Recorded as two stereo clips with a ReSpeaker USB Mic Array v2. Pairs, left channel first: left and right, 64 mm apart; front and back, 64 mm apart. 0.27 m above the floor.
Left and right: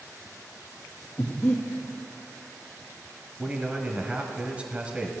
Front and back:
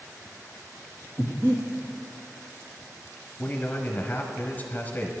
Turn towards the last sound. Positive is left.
turn(degrees=-35)